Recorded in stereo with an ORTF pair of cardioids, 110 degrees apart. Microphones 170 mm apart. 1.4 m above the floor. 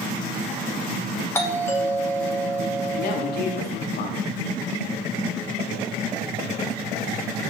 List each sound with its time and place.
1.4 s a doorbell: 15° left, 3 m
3.0 s a woman speaking: 65° left, 2.5 m